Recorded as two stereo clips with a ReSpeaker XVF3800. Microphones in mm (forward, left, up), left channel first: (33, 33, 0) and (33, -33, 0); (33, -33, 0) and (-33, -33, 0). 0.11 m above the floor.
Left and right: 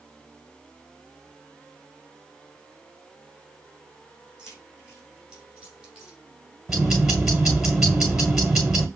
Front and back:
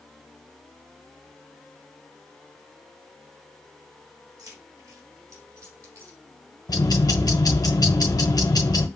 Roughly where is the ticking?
Ahead.